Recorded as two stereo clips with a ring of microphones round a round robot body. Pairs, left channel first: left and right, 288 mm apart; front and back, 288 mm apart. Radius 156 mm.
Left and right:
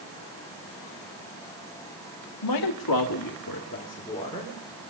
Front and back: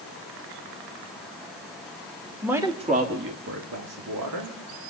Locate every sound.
2.4 s a man speaking: 95° left, 1.7 m; by 4.6 s 170° left, 2.5 m